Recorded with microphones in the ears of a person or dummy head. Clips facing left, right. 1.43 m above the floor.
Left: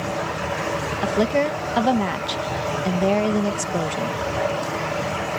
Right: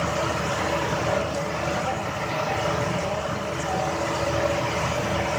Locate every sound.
1.0 s a woman speaking: 80° left